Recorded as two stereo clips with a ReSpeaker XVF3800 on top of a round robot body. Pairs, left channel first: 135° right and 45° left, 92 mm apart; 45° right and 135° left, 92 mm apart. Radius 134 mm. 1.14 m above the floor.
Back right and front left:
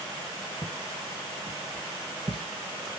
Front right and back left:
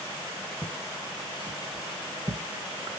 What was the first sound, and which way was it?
Footsteps, 90° left.